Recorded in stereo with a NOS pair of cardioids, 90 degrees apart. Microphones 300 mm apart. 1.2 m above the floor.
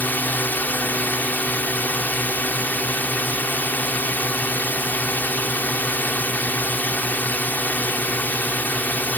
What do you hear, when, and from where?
0.0 s a drone: 5° left